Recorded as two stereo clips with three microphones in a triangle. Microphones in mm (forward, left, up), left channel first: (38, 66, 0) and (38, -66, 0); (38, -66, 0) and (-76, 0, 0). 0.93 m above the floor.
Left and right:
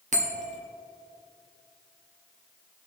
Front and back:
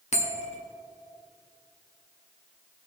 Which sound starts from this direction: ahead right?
A bell, at 0.1 s.